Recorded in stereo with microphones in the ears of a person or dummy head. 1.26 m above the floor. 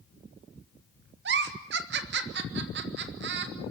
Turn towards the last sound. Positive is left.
turn(degrees=-55)  # may be behind; listen again after turning